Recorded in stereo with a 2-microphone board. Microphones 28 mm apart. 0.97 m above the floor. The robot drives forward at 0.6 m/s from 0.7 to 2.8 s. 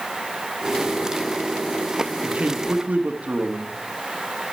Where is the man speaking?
60° right (ahead or behind), 1.6 m.